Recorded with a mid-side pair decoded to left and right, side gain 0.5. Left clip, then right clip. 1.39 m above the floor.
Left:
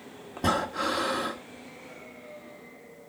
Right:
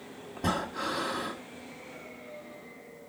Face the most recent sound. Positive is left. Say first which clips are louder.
# left 5 dB
turn(degrees=30)